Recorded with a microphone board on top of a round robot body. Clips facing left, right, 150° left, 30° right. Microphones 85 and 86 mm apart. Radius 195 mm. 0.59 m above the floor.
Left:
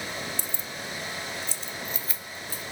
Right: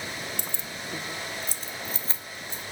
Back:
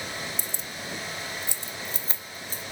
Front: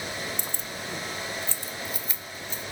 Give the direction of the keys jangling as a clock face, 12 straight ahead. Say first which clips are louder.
Even, front 2 dB; 2 o'clock.